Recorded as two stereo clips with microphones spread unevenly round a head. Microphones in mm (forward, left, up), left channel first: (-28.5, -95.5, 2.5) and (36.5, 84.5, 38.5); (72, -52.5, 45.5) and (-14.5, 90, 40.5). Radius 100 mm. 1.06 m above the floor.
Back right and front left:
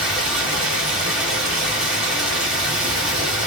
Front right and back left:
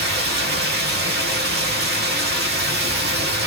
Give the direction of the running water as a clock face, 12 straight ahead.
7 o'clock.